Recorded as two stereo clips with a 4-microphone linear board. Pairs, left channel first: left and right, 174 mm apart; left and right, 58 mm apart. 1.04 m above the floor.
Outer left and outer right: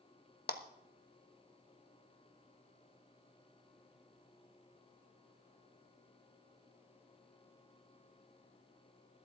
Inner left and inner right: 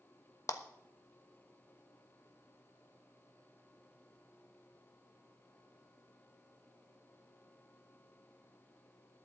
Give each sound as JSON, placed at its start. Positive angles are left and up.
{"t": 0.5, "sound": "a clap", "side_deg": 65, "distance_m": 1.1}